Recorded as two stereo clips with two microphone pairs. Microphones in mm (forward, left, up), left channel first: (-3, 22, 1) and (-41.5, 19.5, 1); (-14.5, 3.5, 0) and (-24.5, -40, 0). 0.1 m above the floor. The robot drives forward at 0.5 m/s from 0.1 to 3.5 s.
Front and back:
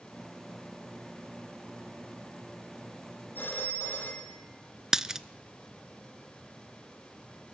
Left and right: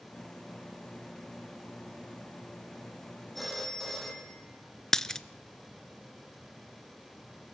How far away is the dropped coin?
About 0.5 m.